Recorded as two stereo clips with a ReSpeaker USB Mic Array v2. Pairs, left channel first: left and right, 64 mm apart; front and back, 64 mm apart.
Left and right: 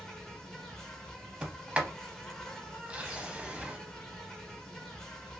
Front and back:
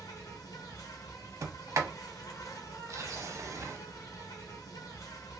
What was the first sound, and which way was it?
An insect, 10° left.